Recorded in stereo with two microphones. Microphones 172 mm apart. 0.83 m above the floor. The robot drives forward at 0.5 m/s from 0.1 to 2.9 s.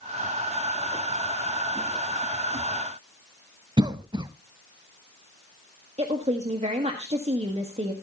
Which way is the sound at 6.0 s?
40° right (ahead or behind).